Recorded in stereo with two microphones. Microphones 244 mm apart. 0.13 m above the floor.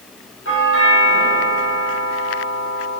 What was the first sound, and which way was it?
A doorbell, 55° left (ahead or behind).